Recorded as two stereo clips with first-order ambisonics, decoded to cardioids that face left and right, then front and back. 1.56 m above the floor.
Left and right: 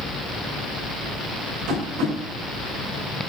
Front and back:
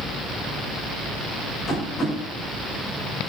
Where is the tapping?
65° right, 8.5 m.